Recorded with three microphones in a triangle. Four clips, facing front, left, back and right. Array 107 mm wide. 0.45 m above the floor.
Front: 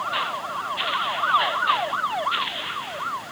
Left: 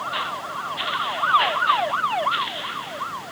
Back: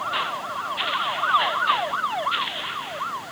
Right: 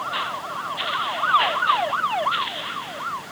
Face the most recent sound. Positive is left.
No sound to turn to.